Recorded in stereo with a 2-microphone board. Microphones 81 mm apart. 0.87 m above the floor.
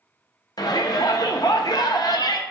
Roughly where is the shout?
Left.